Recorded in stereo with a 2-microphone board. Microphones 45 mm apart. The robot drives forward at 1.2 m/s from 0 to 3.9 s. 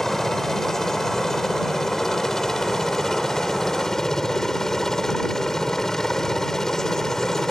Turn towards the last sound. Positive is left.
turn(degrees=15)  # may be behind; listen again after turning